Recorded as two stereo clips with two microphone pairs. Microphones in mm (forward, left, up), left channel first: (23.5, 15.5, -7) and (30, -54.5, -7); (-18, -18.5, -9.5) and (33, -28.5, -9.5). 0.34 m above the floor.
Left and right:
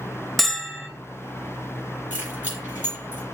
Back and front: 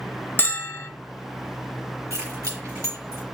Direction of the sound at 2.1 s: 15° right.